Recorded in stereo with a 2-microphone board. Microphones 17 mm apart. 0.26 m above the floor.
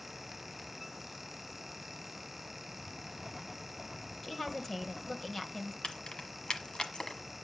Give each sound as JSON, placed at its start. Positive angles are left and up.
{"t": 2.7, "sound": "writing", "side_deg": 5, "distance_m": 4.0}
{"t": 4.2, "sound": "a woman speaking", "side_deg": 20, "distance_m": 1.4}
{"t": 5.8, "sound": "keys jangling", "side_deg": 55, "distance_m": 1.2}